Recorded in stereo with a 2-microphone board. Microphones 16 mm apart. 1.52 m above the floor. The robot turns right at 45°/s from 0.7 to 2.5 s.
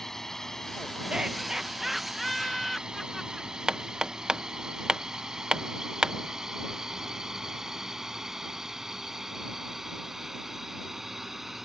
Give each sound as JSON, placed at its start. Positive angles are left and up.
{"t": 0.0, "sound": "a drone", "side_deg": 30}
{"t": 1.1, "sound": "laughter", "azimuth_deg": -60}
{"t": 3.7, "sound": "hammering", "side_deg": -40}